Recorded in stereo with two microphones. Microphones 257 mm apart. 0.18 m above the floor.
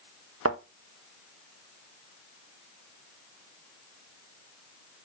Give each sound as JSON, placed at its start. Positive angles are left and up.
{"t": 0.5, "sound": "a thud", "side_deg": -60, "distance_m": 1.7}